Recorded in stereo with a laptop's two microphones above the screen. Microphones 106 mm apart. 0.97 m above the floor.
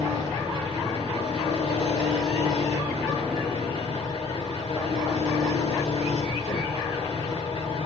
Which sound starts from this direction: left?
An engine running, at 0.0 s.